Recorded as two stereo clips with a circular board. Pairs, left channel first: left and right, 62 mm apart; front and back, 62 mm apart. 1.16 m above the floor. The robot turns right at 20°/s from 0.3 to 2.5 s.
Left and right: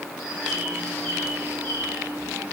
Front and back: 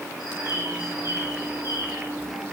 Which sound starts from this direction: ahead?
A bird, at 0.2 s.